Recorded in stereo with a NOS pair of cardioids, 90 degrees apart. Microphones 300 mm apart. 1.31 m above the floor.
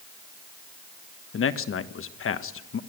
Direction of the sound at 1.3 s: 45° left.